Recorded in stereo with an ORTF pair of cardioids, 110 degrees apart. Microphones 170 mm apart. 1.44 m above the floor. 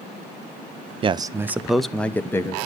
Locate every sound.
1.0 s a man speaking: 30° right, 0.6 m; by 2.6 s 15° left, 1.2 m